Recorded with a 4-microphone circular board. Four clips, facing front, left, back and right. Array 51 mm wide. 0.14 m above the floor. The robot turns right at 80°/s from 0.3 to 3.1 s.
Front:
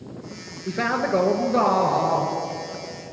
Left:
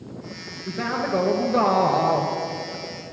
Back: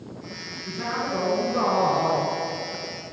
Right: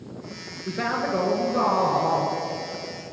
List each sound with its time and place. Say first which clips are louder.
0.7 s a man speaking: even, front 6 dB; 20° right, 2 m; by 2.3 s 115° left, 2 m